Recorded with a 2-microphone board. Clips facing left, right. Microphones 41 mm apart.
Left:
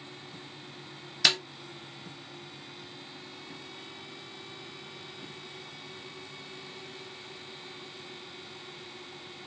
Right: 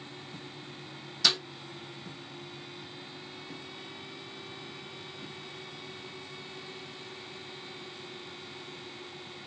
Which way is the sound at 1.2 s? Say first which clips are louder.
Left 2 dB; 60° left (ahead or behind).